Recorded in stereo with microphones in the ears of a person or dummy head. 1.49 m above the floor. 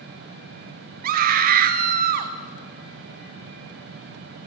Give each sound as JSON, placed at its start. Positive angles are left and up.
{"t": 1.0, "sound": "a scream", "side_deg": -60, "distance_m": 0.6}